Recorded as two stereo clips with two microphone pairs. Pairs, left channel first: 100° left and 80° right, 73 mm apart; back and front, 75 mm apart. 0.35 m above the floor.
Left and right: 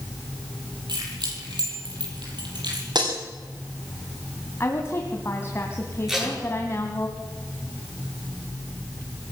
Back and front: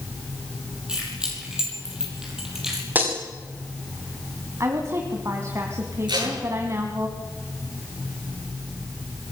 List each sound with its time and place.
0.9 s keys jangling: 80° right, 9 m; by 2.9 s 85° right, 7.5 m
3.0 s breaking glass: 65° right, 6.5 m
4.6 s a woman speaking: 50° left, 2 m
6.1 s tape being pulled: 5° left, 7 m